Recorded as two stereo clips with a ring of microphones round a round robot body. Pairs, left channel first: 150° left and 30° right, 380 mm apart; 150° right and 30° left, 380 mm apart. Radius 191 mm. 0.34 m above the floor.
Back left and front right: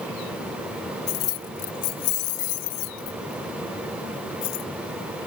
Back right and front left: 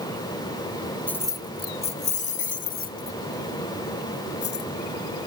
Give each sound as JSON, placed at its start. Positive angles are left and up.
{"t": 1.1, "sound": "keys jangling", "azimuth_deg": 125}